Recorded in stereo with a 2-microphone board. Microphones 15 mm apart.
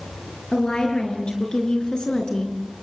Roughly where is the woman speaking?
Left.